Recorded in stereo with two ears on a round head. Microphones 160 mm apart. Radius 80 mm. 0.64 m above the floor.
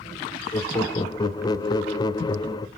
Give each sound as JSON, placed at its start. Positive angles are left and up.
{"t": 0.5, "sound": "laughter", "side_deg": 20, "distance_m": 0.9}